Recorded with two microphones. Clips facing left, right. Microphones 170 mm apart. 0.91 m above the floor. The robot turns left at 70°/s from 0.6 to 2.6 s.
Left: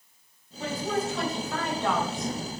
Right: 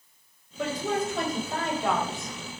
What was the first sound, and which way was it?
A woman speaking, 85° right.